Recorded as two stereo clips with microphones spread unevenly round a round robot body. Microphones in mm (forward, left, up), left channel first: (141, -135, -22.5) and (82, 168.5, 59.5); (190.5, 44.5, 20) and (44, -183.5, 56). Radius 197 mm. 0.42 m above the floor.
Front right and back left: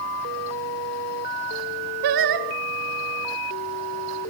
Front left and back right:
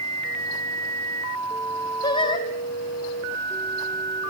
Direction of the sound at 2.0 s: 130° left.